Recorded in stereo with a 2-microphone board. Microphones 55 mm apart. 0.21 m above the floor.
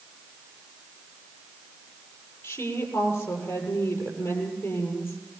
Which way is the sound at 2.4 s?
45° left (ahead or behind).